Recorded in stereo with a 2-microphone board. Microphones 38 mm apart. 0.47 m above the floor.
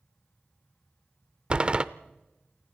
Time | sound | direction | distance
1.5 | a door slam | 30° right (ahead or behind) | 0.7 m